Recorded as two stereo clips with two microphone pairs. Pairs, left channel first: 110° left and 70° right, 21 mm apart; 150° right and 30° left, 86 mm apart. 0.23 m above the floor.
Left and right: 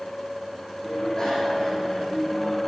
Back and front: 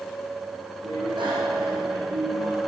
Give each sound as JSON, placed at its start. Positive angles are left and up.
{"t": 0.8, "sound": "a bicycle bell", "azimuth_deg": 50, "distance_m": 7.0}